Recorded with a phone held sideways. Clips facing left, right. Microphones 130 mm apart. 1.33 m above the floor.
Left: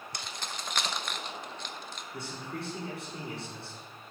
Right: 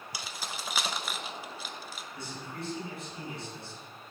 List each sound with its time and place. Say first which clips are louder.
0.1 s keys jangling: right 1 dB; 5° right (ahead or behind), 0.7 m
2.1 s a man speaking: left 3 dB; 80° left, 5.5 m